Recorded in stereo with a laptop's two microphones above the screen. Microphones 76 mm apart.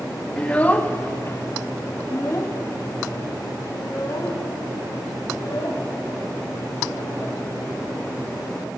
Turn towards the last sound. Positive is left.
turn(degrees=65)  # may be behind; listen again after turning